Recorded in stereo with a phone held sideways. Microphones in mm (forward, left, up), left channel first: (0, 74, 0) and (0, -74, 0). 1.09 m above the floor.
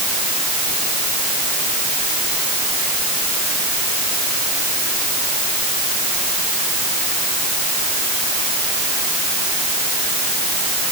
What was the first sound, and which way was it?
Only background noise.